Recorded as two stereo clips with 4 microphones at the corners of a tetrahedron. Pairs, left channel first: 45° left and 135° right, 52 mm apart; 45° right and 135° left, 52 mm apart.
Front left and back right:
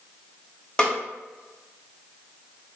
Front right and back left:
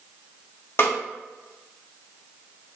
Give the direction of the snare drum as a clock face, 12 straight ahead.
1 o'clock.